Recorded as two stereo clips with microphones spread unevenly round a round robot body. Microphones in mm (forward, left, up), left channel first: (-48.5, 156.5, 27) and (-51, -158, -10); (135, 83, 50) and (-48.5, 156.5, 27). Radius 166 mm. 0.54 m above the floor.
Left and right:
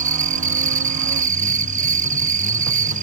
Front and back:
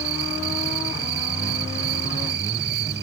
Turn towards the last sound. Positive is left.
turn(degrees=-155)